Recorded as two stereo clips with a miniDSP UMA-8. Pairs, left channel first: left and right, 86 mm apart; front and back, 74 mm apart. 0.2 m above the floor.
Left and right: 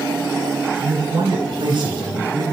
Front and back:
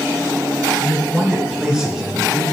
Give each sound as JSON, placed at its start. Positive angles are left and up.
{"t": 0.8, "sound": "a man speaking", "azimuth_deg": -105, "distance_m": 2.5}